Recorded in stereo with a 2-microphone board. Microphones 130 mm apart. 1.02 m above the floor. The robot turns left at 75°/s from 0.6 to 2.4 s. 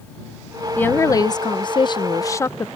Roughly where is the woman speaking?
Behind.